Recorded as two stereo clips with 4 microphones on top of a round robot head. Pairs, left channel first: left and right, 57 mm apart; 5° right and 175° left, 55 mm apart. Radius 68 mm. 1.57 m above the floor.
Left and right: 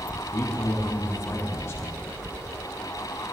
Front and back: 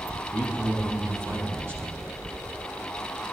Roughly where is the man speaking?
Behind left.